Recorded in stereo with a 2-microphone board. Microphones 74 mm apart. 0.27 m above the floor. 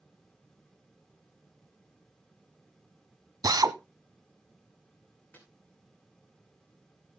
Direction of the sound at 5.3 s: 20° left (ahead or behind).